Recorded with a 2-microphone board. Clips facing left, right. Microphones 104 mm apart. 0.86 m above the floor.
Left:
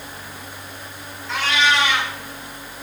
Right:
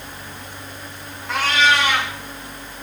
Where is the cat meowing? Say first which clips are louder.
Right 2 dB; 50° right (ahead or behind), 1.9 m.